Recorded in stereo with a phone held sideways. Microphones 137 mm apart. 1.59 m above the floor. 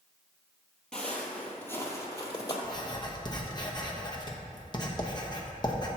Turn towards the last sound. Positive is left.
turn(degrees=30)  # may be behind; listen again after turning